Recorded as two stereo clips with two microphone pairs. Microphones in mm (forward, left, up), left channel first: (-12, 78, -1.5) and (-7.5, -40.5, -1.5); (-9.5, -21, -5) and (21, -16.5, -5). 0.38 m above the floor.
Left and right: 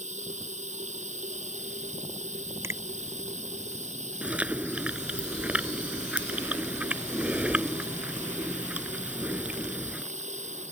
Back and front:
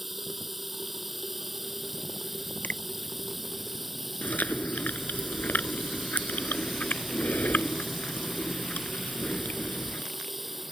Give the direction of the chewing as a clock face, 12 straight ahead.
6 o'clock.